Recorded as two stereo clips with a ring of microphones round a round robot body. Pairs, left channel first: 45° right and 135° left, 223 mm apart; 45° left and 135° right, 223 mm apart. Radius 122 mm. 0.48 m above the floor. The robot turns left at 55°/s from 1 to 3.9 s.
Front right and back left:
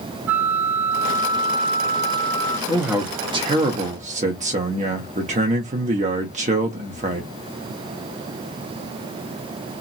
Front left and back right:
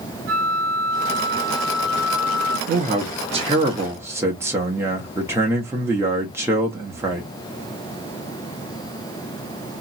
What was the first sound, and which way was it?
A flute, 145° right.